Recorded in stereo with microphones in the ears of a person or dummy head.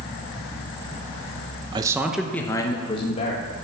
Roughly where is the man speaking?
Right.